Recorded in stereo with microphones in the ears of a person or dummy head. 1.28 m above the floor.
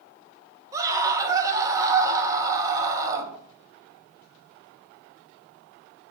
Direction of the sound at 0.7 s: 15° right (ahead or behind).